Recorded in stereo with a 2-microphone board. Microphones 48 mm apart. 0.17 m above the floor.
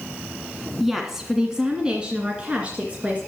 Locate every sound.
0.8 s a woman speaking: 5° right (ahead or behind), 1.8 m; by 3.2 s 30° right (ahead or behind), 2.5 m